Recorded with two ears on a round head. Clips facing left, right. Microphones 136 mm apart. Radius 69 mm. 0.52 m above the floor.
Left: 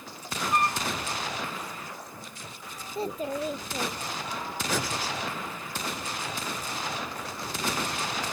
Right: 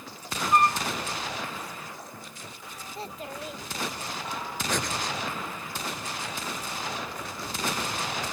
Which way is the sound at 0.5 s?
45° right (ahead or behind).